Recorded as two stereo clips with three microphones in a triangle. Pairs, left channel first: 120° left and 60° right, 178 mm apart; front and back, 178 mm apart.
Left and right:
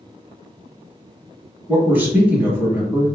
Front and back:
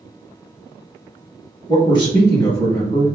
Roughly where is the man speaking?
Ahead.